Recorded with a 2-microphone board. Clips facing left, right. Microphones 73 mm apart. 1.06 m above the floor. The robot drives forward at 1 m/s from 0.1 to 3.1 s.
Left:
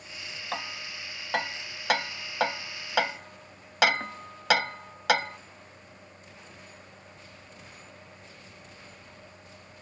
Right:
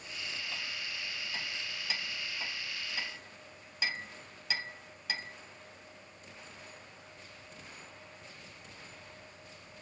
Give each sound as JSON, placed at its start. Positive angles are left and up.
{"t": 0.5, "sound": "hammering", "side_deg": 60}